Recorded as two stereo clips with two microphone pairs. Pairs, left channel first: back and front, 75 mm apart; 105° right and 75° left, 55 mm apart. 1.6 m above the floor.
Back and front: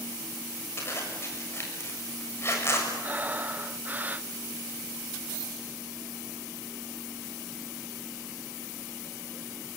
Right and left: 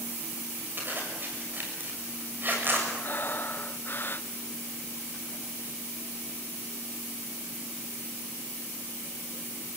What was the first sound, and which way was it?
A zipper, 125° left.